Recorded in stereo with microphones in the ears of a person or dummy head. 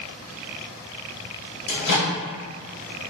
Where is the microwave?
75° left (ahead or behind), 1.6 m.